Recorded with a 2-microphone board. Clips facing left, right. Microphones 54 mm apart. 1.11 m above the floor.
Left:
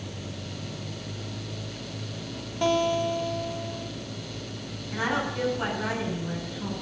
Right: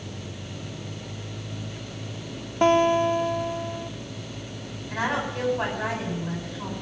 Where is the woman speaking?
55° right (ahead or behind), 8 m.